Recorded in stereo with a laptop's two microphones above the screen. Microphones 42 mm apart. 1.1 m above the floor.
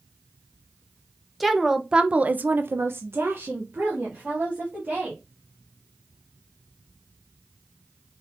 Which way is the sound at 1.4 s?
Centre (ahead or behind).